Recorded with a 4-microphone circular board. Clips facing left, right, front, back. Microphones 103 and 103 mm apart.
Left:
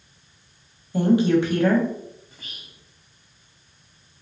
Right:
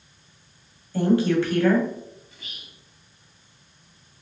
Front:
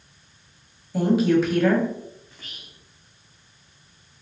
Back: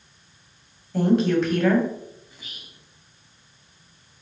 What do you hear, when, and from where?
0.9 s a woman speaking: 75° left, 1.1 m
2.3 s whispering: 110° left, 1.5 m